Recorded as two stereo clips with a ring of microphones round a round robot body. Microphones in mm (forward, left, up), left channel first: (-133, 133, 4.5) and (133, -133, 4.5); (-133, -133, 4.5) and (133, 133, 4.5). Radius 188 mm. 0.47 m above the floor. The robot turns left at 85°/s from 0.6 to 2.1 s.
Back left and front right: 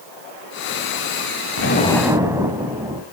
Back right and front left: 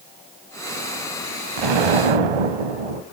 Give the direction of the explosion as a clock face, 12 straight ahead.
9 o'clock.